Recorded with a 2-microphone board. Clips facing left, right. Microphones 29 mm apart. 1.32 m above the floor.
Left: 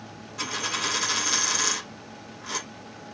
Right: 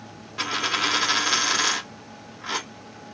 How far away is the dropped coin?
About 0.7 m.